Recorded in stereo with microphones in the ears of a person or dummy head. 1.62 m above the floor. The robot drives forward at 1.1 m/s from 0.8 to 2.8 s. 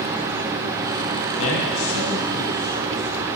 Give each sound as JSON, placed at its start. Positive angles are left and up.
{"t": 1.4, "sound": "a man speaking", "side_deg": 75, "distance_m": 1.7}